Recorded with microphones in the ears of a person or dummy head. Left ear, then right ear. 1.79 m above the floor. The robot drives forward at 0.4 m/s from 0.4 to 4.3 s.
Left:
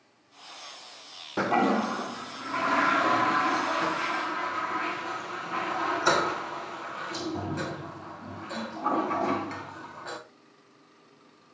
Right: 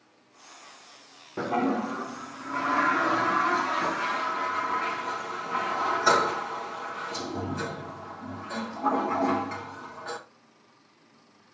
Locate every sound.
1.4 s a toilet flushing: 30° left (ahead or behind), 0.6 m; by 10.2 s 10° left (ahead or behind), 1.7 m